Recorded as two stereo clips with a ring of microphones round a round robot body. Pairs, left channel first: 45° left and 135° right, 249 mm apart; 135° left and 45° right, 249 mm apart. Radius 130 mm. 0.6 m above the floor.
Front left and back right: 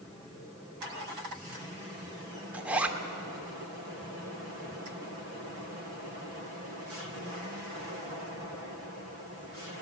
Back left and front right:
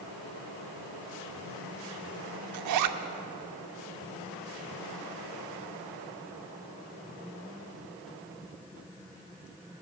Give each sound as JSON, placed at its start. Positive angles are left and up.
{"t": 2.5, "sound": "a zipper", "azimuth_deg": -50, "distance_m": 0.7}